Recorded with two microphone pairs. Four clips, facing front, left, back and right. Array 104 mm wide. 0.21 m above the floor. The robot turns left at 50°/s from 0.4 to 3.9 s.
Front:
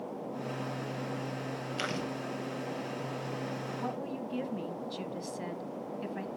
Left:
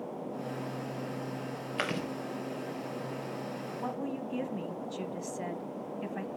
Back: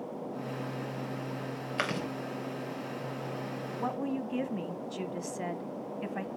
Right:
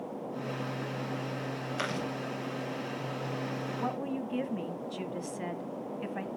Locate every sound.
1.8 s chewing: 165° left, 3 m; by 2.1 s 150° left, 3 m
3.8 s a woman speaking: 160° right, 1.1 m; by 6.3 s 165° right, 1.1 m